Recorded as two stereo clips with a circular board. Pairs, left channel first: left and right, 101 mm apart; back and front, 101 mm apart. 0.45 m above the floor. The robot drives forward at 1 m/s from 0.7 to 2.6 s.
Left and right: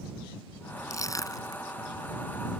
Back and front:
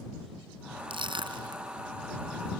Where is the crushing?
35° left; by 1.6 s 40° left.